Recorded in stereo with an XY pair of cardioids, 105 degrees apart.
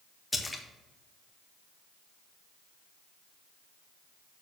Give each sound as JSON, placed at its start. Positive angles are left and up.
{"t": 0.3, "sound": "a splash", "azimuth_deg": 15, "distance_m": 1.5}